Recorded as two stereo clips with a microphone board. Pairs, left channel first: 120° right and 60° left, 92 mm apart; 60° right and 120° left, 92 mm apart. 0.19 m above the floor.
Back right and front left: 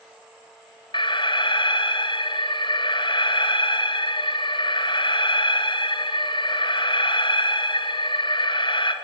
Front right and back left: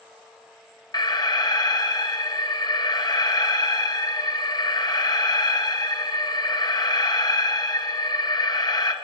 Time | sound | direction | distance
0.9 | an alarm | 100° right | 2 m